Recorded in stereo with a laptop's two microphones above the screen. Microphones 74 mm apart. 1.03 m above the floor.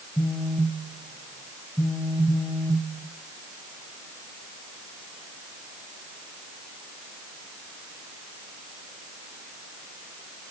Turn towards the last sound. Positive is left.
turn(degrees=25)  # may be behind; listen again after turning